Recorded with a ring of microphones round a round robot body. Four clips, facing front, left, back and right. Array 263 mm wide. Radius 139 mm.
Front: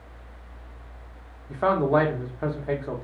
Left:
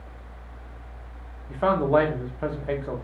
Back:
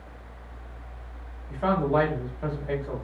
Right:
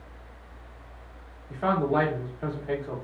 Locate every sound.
1.5 s a man speaking: 45° left, 0.9 m